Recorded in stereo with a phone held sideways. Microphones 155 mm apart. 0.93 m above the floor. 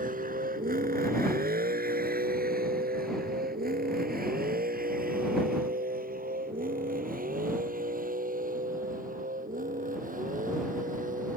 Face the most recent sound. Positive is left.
turn(degrees=-65)  # may be behind; listen again after turning